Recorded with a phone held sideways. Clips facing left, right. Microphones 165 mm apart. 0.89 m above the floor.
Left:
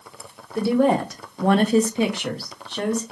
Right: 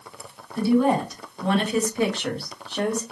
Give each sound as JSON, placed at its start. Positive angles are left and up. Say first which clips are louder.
{"t": 0.6, "sound": "a woman speaking", "louder": "left 1 dB", "side_deg": 65, "distance_m": 0.9}